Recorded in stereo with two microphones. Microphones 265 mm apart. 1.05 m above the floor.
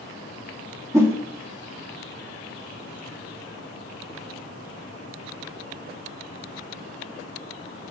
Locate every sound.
0.9 s a whoosh: 10° right (ahead or behind), 1.5 m